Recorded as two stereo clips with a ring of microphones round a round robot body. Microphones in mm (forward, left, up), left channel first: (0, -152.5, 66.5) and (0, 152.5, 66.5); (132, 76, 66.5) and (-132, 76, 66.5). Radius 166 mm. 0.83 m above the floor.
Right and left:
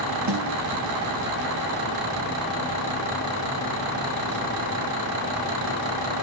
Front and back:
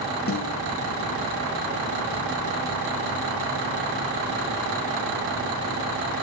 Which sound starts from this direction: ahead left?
A snare drum, at 0.3 s.